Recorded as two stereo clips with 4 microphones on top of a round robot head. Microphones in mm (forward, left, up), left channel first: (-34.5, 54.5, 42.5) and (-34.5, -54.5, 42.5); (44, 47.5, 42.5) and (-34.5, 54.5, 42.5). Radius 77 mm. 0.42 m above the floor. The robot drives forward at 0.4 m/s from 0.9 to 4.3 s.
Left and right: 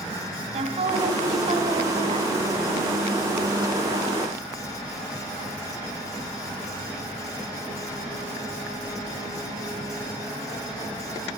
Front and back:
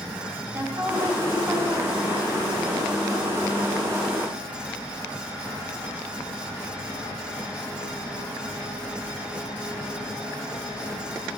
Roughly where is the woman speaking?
Right.